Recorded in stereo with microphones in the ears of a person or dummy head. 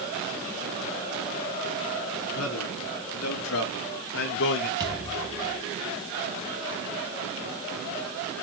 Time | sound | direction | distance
2.3 | a man speaking | 85° left | 4.5 m
4.8 | a thud | 20° right (ahead or behind) | 3 m